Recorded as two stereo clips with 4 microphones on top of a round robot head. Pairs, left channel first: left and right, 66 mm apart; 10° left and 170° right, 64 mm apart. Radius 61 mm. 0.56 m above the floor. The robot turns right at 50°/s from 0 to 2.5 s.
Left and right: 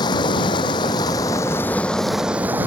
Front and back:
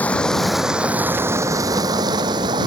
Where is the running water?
75° left; by 2.7 s 160° right.